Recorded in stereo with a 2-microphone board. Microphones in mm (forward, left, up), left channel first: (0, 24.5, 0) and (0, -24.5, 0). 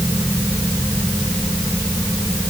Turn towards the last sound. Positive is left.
No sound to turn to.